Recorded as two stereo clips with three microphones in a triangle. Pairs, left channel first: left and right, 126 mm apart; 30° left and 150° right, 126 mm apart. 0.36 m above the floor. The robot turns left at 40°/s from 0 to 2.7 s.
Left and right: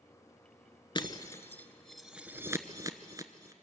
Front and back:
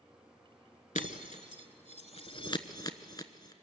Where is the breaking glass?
40° left, 0.9 m; by 3.5 s 30° right, 0.9 m.